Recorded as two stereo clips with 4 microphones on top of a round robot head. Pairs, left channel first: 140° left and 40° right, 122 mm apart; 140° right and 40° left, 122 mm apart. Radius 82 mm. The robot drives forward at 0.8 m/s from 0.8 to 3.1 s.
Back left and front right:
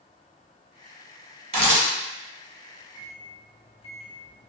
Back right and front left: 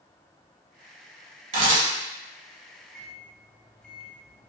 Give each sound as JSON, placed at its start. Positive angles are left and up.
{"t": 1.5, "sound": "a camera shutter", "azimuth_deg": 0, "distance_m": 1.8}
{"t": 2.9, "sound": "a microwave", "azimuth_deg": 125, "distance_m": 0.7}